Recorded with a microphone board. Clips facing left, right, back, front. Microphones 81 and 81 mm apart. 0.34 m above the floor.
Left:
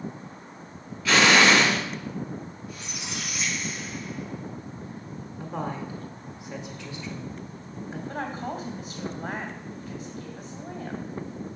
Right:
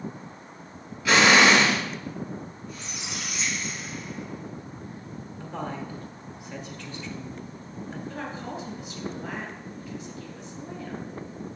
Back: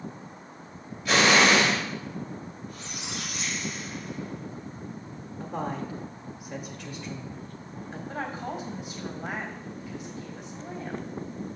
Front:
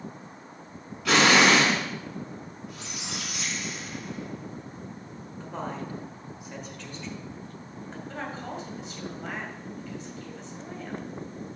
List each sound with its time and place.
1.1 s an explosion: 10° right, 3 m
2.7 s a squeak: 5° left, 4.5 m
5.4 s a woman speaking: 115° left, 1.1 m
8.1 s a woman speaking: 110° left, 2 m